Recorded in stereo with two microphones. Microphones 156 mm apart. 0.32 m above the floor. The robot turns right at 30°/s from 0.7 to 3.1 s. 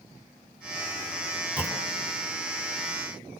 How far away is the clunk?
About 3 m.